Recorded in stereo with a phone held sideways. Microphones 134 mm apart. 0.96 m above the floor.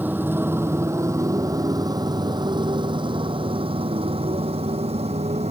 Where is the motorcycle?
15° right (ahead or behind); by 5.5 s 50° right (ahead or behind).